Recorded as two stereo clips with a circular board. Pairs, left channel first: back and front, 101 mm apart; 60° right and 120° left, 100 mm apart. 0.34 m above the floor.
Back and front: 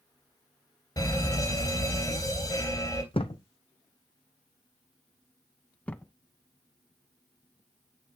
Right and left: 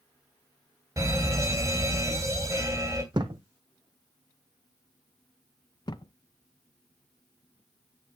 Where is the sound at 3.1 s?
160° left, 1.0 m.